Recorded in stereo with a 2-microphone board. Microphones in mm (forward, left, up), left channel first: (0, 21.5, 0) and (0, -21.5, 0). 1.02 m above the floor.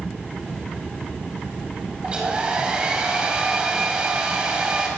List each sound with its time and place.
2.0 s a hair dryer: 20° right (ahead or behind), 5 m